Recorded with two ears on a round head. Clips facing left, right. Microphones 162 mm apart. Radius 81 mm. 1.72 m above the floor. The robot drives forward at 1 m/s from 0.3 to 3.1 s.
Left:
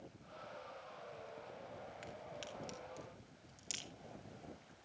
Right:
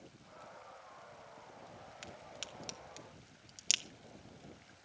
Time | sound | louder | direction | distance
2.0 | a crack | left 2 dB | 50° right (ahead or behind) | 2.5 m